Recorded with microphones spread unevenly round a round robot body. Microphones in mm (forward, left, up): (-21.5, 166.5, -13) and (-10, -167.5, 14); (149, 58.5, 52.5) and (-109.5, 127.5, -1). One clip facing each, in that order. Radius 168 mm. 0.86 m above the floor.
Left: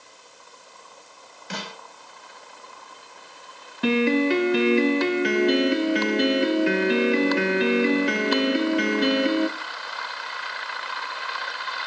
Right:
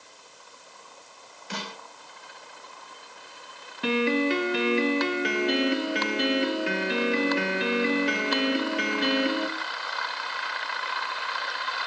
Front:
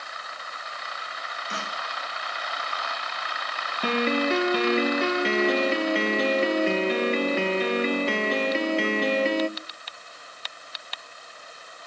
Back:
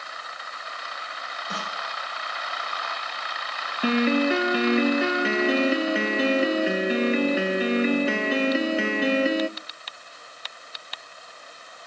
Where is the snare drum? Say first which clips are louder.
Left 2 dB, back 1 dB; 115° left, 4 m.